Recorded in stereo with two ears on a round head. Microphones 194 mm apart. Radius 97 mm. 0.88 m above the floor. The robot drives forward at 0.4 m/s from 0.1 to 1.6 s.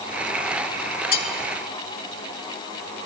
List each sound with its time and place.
1.1 s cutlery clinking: 40° left (ahead or behind), 1.7 m; by 1.3 s 45° left (ahead or behind), 1.6 m